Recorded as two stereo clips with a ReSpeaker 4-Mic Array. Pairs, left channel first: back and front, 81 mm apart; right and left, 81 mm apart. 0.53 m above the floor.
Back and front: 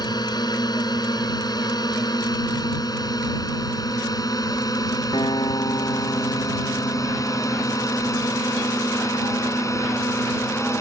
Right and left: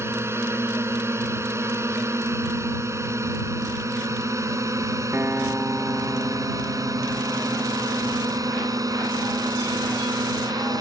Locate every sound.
0.0 s a drone: 150° left; by 10.8 s 130° left
5.1 s a guitar: 155° left